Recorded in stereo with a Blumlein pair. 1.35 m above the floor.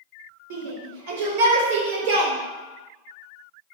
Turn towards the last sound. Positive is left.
turn(degrees=-50)